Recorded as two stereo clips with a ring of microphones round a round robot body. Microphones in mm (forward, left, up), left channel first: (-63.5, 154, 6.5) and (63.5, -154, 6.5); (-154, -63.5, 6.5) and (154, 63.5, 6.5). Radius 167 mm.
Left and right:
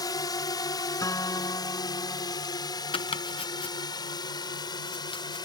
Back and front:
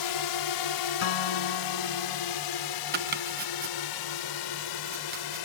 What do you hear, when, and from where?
0.0 s a drone: 170° right
1.0 s a guitar: 165° right
2.9 s chopping: 50° left